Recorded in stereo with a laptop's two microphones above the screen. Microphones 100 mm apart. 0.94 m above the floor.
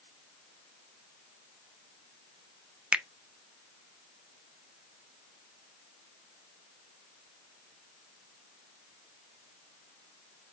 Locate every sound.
2.9 s a finger snap: 10° right (ahead or behind), 0.5 m